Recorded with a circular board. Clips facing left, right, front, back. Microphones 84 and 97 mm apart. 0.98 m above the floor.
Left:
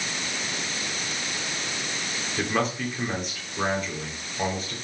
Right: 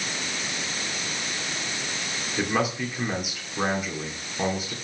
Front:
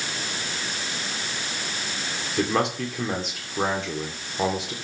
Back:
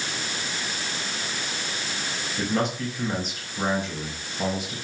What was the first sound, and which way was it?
A man speaking, 10° right.